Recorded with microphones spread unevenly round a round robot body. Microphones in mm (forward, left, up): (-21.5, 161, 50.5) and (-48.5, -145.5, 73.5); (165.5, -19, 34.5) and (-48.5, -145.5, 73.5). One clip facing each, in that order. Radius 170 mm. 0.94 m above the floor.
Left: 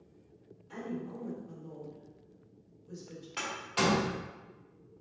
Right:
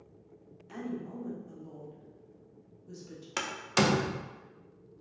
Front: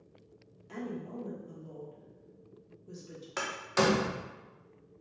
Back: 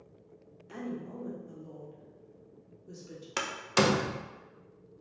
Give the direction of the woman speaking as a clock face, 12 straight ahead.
2 o'clock.